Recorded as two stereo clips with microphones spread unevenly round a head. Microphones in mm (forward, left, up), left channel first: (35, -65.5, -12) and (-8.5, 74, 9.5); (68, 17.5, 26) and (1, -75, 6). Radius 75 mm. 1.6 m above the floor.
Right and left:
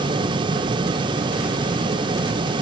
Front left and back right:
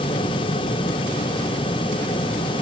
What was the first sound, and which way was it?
Only background noise.